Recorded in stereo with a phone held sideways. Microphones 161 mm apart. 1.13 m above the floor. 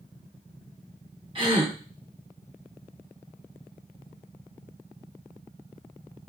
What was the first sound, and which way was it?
A gasp, 30° right (ahead or behind).